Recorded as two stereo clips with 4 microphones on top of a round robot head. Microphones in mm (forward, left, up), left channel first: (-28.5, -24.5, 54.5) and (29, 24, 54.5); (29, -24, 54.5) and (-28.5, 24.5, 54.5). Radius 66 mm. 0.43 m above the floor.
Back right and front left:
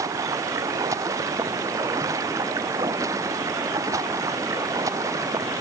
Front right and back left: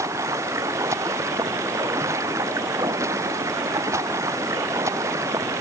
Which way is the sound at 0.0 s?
85° left.